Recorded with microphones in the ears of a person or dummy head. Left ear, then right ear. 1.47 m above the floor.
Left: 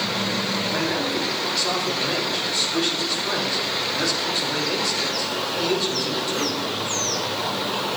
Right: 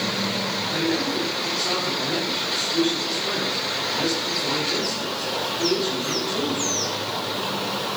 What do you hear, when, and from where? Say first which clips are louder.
0.7 s a man speaking: even; 30° left (ahead or behind), 4 m